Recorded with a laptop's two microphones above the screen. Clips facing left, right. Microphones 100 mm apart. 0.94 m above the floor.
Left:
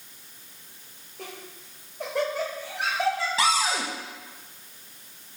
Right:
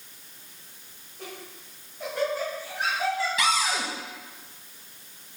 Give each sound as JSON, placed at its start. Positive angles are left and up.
{"t": 1.2, "sound": "laughter", "side_deg": 80, "distance_m": 3.0}
{"t": 3.4, "sound": "a cupboard door", "side_deg": 35, "distance_m": 1.2}